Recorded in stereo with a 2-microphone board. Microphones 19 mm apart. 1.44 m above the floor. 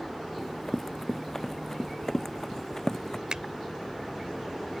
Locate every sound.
0.4 s running footsteps: 15° left (ahead or behind); by 3.2 s 25° left (ahead or behind)
3.3 s a finger snap: 45° right (ahead or behind)